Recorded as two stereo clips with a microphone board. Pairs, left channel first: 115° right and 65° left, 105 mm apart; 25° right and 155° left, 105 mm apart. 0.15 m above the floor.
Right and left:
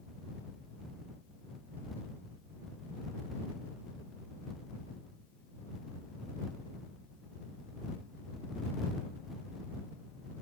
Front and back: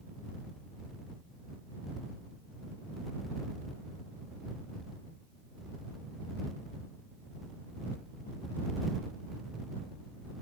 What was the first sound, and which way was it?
Only background noise.